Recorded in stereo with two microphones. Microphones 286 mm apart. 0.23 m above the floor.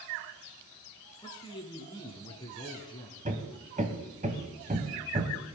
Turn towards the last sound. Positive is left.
turn(degrees=-25)  # may be behind; listen again after turning